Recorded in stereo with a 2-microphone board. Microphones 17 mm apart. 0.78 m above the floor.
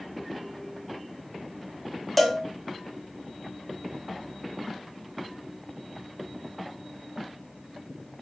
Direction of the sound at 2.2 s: 5° right (ahead or behind).